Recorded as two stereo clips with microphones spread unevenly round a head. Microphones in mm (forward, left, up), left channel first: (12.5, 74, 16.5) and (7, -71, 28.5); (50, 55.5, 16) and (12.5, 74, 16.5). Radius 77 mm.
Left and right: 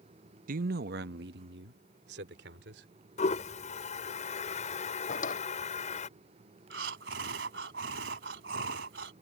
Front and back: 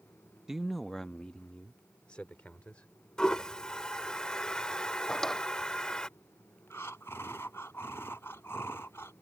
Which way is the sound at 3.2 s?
45° left.